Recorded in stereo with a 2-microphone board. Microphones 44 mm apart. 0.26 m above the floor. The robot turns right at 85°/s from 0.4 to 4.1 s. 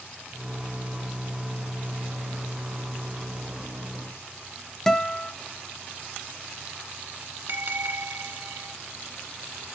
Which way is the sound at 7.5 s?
55° right (ahead or behind).